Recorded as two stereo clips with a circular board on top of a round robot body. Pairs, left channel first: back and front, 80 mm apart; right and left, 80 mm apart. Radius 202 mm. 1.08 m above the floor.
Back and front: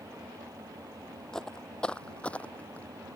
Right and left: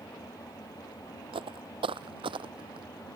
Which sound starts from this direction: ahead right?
An engine running, at 0.0 s.